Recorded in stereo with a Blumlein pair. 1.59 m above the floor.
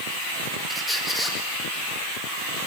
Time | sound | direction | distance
0.7 | a squeak | 5° left | 1.7 m